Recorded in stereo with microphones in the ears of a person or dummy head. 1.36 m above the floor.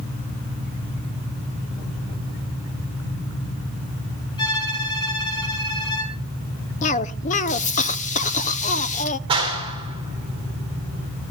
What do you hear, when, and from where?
4.4 s a violin: 30° left (ahead or behind), 4 m
6.8 s a cough: 45° left (ahead or behind), 0.8 m
9.3 s a clap: 25° right (ahead or behind), 3 m